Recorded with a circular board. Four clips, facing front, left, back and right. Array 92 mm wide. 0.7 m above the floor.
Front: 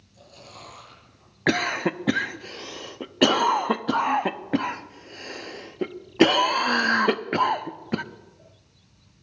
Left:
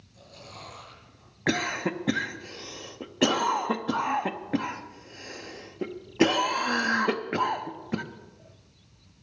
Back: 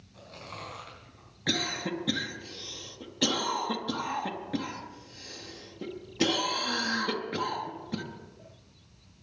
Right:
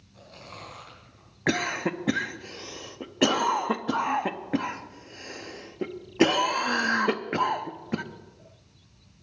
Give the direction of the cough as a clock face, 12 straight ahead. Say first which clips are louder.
Right 1 dB, front 9 dB; 12 o'clock.